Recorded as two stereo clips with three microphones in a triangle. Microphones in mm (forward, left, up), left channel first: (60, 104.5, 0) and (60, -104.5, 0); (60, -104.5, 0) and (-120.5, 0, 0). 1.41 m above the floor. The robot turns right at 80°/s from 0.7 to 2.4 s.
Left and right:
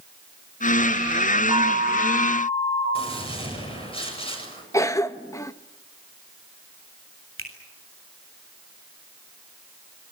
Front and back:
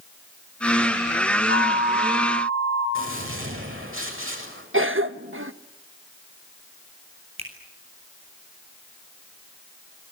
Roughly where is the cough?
Behind.